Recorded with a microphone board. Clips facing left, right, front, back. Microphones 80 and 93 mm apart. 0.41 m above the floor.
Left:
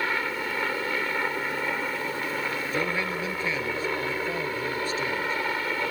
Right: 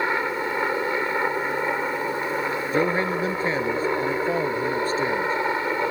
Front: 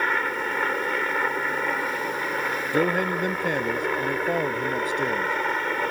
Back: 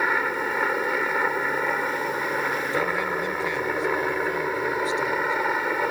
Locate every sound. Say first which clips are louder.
0.0 s a helicopter: right 4 dB, back 1 dB; 105° right
2.7 s a man speaking: right 8 dB, front 6 dB; 40° right